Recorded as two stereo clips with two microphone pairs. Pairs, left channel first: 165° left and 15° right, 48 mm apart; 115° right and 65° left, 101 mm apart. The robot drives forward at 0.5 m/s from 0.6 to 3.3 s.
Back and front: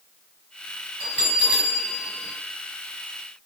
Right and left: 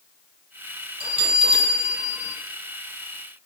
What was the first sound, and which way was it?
A bell, 45° left.